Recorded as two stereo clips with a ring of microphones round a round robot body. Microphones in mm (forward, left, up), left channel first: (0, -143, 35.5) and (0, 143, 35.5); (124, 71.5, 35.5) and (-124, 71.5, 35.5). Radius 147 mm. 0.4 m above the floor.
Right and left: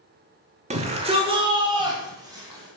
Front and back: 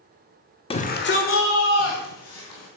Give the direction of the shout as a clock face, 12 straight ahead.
10 o'clock.